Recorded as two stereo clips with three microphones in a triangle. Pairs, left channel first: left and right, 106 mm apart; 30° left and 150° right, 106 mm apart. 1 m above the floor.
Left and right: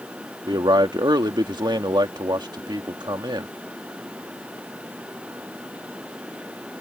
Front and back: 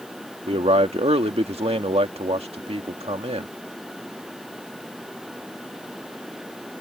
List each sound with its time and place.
0.5 s a man speaking: 135° right